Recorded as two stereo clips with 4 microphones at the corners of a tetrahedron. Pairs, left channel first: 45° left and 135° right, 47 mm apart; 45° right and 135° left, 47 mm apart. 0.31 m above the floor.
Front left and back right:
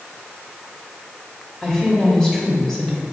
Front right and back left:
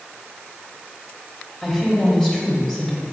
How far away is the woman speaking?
About 1.2 m.